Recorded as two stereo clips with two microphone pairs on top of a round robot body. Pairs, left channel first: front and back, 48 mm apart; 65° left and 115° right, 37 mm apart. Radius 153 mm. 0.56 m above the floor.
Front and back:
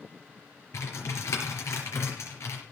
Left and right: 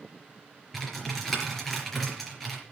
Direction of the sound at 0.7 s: 20° right.